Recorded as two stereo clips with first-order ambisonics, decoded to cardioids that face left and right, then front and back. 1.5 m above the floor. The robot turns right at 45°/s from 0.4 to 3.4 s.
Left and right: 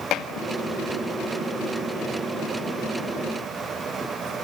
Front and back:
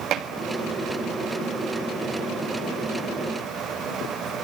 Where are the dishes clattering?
135° left, 1.7 m.